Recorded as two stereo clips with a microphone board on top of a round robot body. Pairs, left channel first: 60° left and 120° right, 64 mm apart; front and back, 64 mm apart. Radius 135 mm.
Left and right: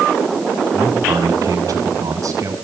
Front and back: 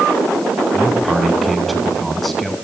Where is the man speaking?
90° right, 7 m; by 2.5 s 85° right, 7.5 m.